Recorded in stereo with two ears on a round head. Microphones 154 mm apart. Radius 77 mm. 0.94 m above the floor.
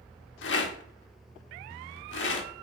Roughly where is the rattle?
Left.